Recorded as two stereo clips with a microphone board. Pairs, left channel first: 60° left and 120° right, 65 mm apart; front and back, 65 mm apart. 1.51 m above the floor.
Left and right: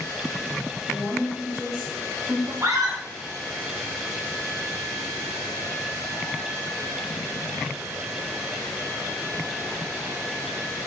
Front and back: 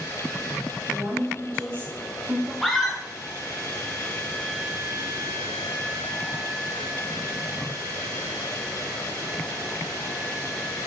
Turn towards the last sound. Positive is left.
turn(degrees=-90)